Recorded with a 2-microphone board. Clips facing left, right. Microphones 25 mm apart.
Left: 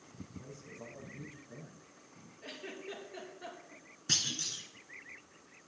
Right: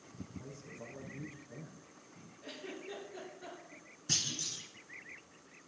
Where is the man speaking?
10° left (ahead or behind), 4 m.